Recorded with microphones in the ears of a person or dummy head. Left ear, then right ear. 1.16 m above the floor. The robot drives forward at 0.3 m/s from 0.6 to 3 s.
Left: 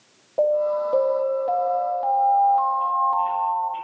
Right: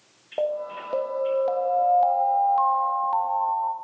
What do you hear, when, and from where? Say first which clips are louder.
0.4 s an alarm: left 7 dB; 15° right (ahead or behind), 0.8 m; by 3.8 s 30° right (ahead or behind), 0.5 m